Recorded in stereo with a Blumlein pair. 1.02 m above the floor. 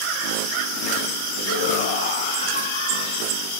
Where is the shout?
65° left, 4 m; by 3.5 s 60° left, 2.5 m.